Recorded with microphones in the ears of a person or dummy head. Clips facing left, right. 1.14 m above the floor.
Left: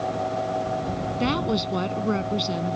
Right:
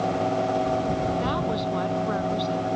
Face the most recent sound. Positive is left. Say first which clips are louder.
# left 2 dB
turn(degrees=40)  # may be behind; listen again after turning